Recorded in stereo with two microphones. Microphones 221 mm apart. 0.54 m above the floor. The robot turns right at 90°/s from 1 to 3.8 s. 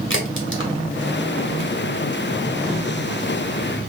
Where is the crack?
60° left (ahead or behind), 1.7 m; by 1.7 s 20° left (ahead or behind), 1.7 m.